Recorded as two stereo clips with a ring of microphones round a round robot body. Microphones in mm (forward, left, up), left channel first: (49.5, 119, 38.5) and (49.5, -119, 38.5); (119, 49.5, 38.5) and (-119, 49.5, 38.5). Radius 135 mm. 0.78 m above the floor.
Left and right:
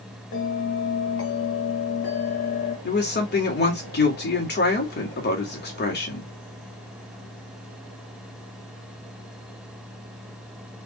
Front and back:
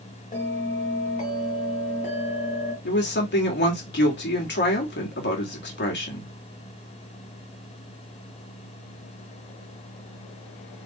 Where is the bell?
60° left, 2 m.